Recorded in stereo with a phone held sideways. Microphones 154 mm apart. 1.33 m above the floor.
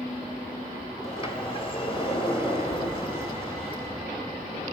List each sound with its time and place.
1.0 s a sliding door: 35° left (ahead or behind), 2.5 m